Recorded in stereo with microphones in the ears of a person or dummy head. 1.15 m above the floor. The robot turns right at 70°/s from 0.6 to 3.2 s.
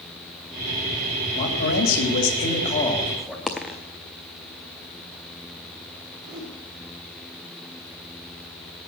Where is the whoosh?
25° right (ahead or behind), 5 m.